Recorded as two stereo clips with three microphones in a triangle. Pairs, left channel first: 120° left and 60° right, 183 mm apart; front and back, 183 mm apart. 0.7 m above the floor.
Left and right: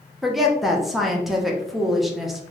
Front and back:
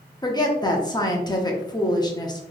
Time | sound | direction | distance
0.2 | a woman speaking | 30° left | 0.6 m